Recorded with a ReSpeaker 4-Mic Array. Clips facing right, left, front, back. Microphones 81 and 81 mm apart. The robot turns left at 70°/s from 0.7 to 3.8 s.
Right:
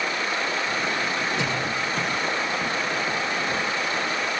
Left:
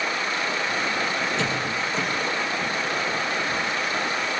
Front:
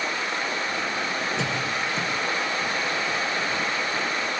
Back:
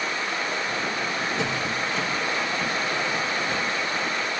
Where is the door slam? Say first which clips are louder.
Even, even; 10° right, 6.5 m; by 2.1 s 60° right, 6.5 m.